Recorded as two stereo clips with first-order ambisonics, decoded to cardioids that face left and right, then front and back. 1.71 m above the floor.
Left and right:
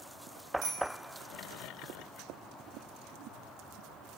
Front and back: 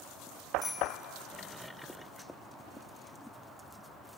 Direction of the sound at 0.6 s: 70° right.